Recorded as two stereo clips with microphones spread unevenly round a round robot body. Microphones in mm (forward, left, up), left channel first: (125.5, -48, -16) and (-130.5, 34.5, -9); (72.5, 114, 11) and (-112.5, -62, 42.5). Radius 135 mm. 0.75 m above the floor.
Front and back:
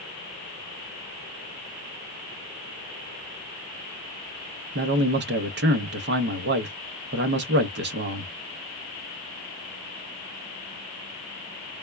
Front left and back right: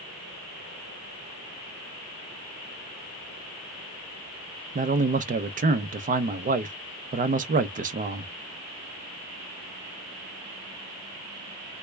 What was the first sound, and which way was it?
A man speaking, 175° left.